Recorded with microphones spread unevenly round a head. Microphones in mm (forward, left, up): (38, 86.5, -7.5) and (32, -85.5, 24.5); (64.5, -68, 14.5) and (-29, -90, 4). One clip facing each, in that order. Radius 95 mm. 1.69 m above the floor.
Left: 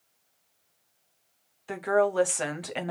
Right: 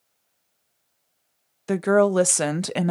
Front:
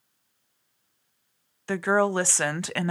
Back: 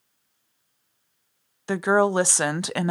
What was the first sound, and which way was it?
A woman speaking, 95° right.